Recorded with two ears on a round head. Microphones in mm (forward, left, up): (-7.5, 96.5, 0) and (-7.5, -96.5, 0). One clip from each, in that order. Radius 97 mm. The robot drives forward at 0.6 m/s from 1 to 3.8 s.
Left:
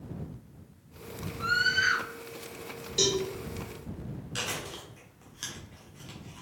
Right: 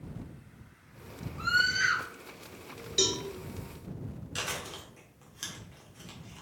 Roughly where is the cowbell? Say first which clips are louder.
Left 2 dB; centre.